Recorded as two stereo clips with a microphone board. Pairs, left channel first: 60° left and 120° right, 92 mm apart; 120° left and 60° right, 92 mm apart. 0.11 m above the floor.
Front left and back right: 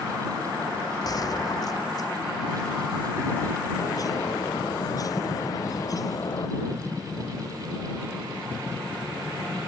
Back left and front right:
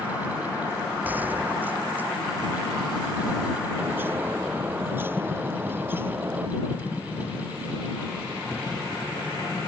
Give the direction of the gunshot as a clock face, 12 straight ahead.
12 o'clock.